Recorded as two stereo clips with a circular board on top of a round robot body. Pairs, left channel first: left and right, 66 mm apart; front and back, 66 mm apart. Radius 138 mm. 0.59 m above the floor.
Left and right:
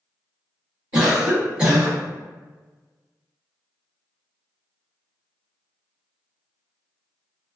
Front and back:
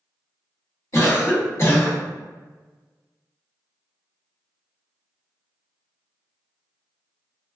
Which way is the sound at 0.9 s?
15° right.